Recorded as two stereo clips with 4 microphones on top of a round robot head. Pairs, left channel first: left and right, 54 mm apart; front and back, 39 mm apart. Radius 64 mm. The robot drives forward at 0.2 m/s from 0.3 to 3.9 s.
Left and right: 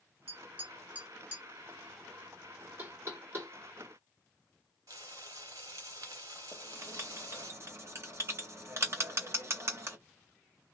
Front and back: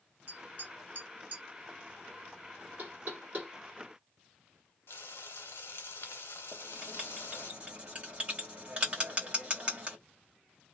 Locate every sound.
0.3 s tapping: 140° right, 1.6 m; by 1.4 s 145° right, 1.8 m
2.8 s knocking: 135° right, 1.9 m
4.9 s frying: 50° right, 0.7 m
6.5 s writing: 120° right, 1.7 m